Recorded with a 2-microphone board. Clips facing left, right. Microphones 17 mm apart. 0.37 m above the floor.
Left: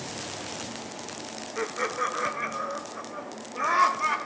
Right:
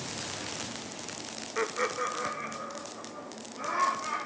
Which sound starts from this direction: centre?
Laughter, at 1.6 s.